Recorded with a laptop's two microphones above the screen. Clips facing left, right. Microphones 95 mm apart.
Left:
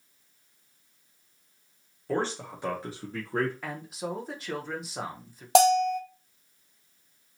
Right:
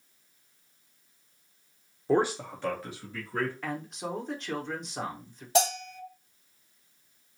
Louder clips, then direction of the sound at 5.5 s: Left 8 dB; 85° left.